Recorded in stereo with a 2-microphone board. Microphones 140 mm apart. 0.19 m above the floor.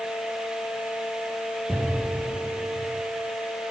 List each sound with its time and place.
1.7 s an explosion: 5° right (ahead or behind), 3 m